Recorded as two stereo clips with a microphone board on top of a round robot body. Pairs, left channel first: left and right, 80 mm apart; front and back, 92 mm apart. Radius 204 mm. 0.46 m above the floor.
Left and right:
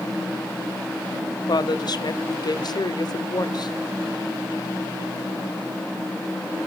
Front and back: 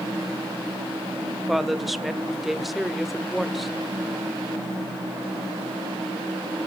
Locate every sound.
1.5 s a woman speaking: 90° left, 1.2 m